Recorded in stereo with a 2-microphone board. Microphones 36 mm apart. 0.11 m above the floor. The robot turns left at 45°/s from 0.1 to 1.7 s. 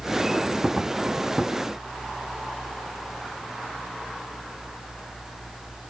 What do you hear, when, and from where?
Only background noise.